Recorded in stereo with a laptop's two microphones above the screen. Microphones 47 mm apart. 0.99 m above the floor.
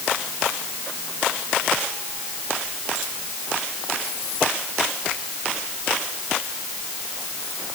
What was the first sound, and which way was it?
Only background noise.